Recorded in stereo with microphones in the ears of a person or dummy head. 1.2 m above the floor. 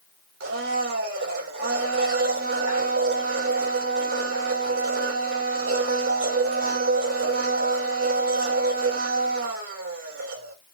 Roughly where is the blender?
Right.